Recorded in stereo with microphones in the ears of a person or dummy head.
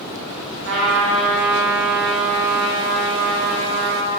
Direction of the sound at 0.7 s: 70° right (ahead or behind).